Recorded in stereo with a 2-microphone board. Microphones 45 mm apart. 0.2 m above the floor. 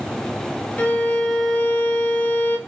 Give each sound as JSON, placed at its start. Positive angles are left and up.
{"t": 0.8, "sound": "a violin", "side_deg": 35, "distance_m": 1.0}